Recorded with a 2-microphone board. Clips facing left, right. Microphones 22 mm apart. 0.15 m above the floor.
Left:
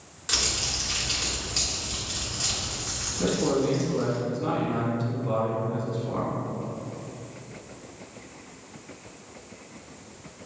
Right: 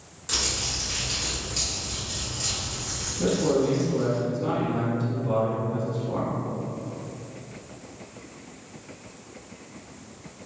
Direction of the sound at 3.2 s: 20° left (ahead or behind).